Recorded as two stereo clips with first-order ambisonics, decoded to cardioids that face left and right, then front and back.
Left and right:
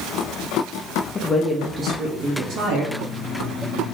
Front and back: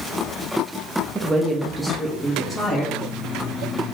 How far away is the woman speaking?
About 0.7 m.